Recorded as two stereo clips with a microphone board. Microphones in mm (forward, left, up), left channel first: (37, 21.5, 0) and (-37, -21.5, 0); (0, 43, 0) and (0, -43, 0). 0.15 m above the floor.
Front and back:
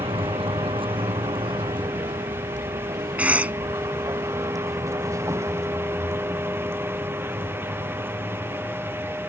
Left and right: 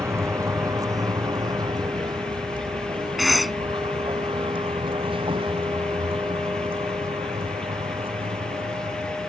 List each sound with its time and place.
0.0 s a vehicle: 145° right; by 9.3 s 80° right
3.2 s a cough: straight behind